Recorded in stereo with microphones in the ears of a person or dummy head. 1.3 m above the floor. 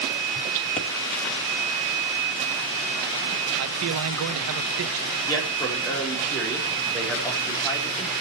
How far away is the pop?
About 1.5 m.